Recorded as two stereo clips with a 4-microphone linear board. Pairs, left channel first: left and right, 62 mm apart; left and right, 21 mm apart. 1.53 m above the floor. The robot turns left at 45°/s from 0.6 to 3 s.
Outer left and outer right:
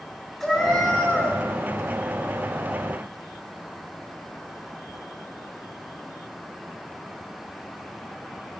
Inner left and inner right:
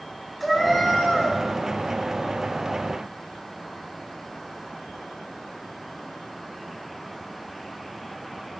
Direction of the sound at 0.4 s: 170° left.